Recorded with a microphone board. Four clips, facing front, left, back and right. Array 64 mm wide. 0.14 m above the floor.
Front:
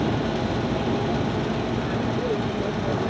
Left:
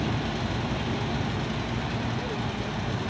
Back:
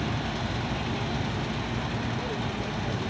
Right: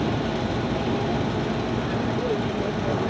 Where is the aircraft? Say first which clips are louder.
Right 5 dB, front 7 dB; 35° right; by 3.1 s 50° right.